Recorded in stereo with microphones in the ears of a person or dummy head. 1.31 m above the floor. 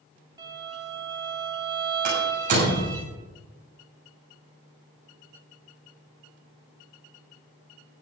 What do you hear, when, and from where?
0.4 s a violin: 25° right (ahead or behind), 2.5 m
2.0 s a door slam: 50° right (ahead or behind), 7 m